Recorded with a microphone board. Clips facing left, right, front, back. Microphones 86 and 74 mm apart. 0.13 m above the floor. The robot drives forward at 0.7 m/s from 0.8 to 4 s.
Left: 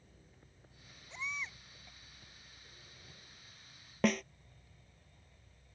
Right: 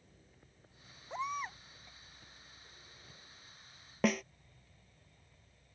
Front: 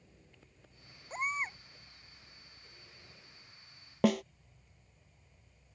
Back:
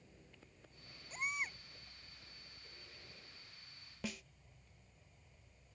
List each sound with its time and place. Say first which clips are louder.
1.1 s a baby crying: right 6 dB, front 6 dB; 50° right; by 1.6 s 55° right
4.0 s a snare drum: even, front 19 dB; straight ahead